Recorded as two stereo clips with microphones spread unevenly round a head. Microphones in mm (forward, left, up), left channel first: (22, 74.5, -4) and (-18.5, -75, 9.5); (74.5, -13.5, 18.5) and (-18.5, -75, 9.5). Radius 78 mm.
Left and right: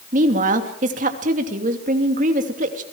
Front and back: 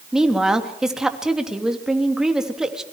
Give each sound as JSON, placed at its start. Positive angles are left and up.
{"t": 0.1, "sound": "a woman speaking", "azimuth_deg": -60, "distance_m": 3.0}